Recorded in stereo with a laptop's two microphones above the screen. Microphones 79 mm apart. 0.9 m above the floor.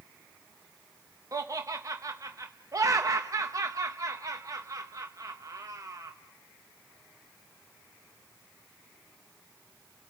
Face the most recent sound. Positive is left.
turn(degrees=-45)  # may be behind; listen again after turning